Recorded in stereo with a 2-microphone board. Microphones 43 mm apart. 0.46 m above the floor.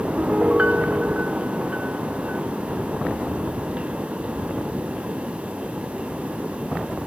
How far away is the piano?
About 0.8 m.